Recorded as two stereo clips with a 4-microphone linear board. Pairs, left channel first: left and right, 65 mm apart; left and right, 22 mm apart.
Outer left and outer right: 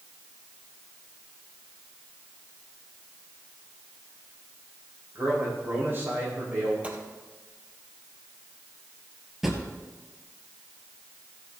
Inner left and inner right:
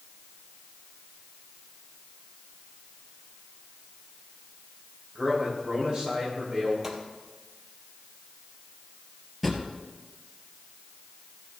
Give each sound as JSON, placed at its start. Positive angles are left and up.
{"t": 5.2, "sound": "a man speaking", "side_deg": -35, "distance_m": 6.5}
{"t": 6.8, "sound": "a gunshot", "side_deg": -20, "distance_m": 2.0}
{"t": 9.4, "sound": "a drawer", "side_deg": -5, "distance_m": 1.8}